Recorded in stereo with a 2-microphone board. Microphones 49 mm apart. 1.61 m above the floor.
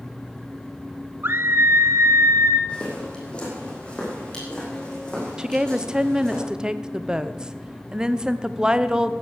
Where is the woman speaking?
15° right (ahead or behind), 0.8 m.